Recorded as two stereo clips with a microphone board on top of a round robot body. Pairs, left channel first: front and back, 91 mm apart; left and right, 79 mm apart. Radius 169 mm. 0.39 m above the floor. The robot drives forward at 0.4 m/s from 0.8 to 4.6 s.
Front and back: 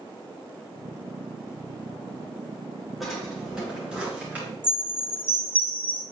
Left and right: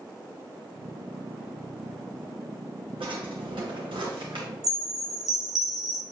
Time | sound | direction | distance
3.0 | a drawer | 90° right | 2.5 m
4.6 | a chime | 65° right | 1.7 m